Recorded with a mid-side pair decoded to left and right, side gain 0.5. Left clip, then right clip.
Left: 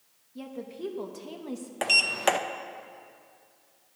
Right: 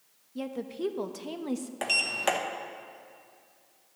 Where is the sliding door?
25° left, 0.7 m.